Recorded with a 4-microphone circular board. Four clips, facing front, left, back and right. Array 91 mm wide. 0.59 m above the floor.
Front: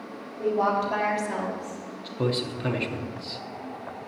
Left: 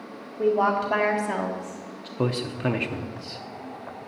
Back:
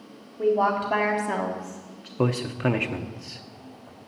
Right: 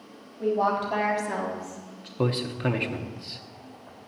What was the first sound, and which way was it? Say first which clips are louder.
A woman speaking: left 3 dB, back 2 dB; 105° left.